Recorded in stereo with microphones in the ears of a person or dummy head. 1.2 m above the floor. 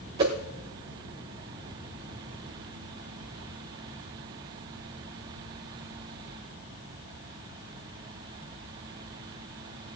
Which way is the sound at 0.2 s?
20° right (ahead or behind).